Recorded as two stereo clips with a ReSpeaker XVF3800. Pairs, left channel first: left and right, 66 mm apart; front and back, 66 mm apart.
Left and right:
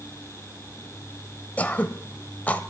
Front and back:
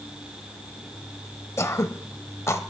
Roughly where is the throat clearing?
Ahead left.